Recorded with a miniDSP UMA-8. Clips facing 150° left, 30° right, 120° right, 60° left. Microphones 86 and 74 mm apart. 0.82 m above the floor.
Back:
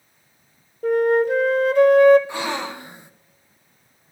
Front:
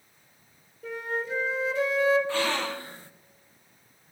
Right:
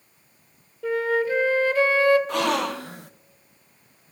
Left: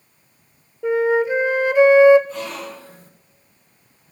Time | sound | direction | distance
0.8 | a flute | 130° left | 0.8 m
2.3 | a gasp | 135° right | 0.7 m